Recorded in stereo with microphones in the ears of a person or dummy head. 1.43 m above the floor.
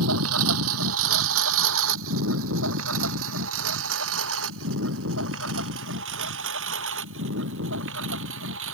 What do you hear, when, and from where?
0.0 s a lawn mower: 75° right (ahead or behind); by 8.8 s 70° right (ahead or behind)